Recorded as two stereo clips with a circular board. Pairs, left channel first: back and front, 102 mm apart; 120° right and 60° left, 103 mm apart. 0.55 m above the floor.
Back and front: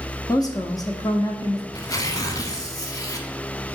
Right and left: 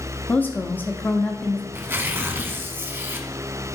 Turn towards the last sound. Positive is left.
turn(degrees=125)